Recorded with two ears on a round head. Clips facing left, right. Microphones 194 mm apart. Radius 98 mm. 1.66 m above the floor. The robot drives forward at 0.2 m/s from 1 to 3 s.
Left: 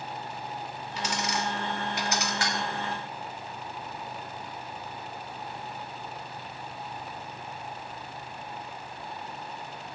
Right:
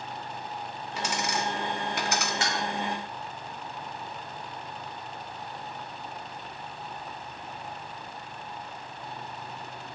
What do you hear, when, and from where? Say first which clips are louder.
1.0 s a dropped coin: right 1 dB; 45° right (ahead or behind), 1.6 m
2.4 s dishes clattering: right 1 dB; 20° right (ahead or behind), 1.6 m